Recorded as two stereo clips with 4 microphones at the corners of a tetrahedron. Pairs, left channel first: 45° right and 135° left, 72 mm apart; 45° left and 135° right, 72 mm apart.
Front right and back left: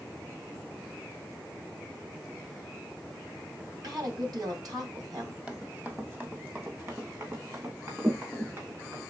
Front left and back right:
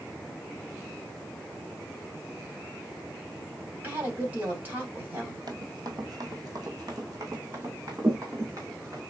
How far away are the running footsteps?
About 1.0 m.